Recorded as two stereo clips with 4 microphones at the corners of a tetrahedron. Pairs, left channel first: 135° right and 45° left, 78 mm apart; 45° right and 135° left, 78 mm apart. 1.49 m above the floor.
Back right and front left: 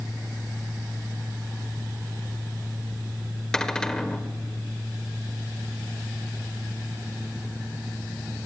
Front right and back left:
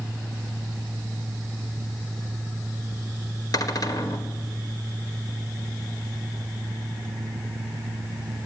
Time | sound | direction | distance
3.5 | a cupboard door | 55° right | 1.8 m